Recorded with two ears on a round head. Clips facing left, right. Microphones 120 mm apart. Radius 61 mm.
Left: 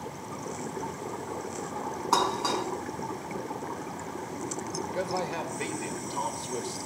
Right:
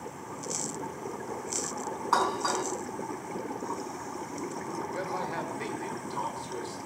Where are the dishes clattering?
25° left (ahead or behind), 3.5 m.